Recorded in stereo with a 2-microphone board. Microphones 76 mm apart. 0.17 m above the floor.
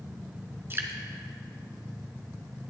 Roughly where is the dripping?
Right.